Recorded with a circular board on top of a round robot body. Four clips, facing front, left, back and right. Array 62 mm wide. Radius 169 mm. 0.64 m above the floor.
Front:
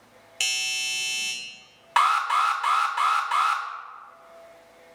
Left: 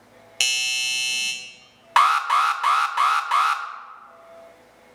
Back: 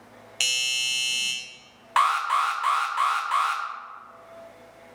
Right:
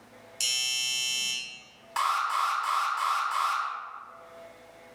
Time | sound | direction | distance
0.4 | a doorbell | 100° left | 1.7 m
2.0 | an alarm | 80° left | 1.0 m